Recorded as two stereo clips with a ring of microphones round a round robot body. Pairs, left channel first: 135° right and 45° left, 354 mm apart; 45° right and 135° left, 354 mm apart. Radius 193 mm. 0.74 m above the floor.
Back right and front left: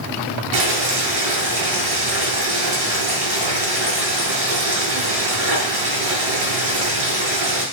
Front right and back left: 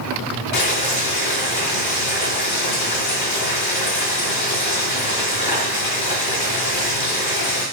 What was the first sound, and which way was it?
Boiling, 5° right.